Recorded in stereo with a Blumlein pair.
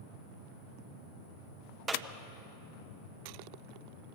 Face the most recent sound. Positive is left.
turn(degrees=-15)